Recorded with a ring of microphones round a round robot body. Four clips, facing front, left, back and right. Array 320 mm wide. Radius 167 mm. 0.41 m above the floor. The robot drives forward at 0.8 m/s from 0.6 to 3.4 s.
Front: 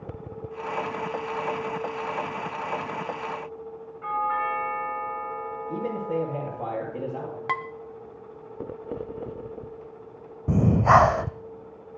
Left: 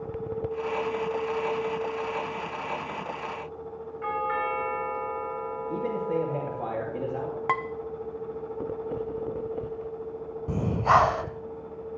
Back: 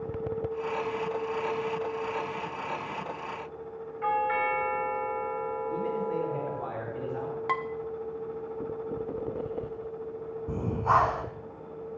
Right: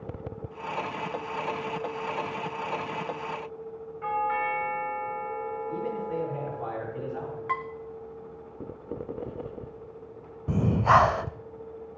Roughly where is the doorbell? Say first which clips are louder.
Right 1 dB, even; behind.